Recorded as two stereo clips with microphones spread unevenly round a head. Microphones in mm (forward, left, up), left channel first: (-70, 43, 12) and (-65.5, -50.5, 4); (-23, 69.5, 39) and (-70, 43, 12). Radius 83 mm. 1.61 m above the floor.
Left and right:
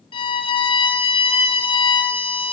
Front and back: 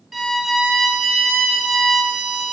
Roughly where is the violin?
Behind left.